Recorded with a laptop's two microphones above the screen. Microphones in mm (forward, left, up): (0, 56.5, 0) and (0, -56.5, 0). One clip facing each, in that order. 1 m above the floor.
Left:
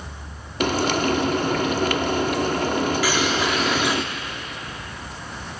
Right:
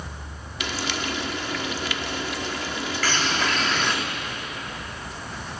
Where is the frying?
50° left (ahead or behind), 0.9 m.